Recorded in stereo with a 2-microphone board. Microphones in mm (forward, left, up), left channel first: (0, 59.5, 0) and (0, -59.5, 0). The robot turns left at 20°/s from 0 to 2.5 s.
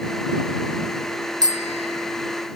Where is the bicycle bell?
35° right (ahead or behind); by 2.2 s 50° right (ahead or behind).